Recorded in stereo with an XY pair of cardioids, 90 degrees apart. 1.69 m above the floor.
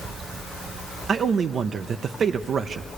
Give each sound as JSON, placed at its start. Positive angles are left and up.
{"t": 1.1, "sound": "a man speaking", "azimuth_deg": -60, "distance_m": 0.5}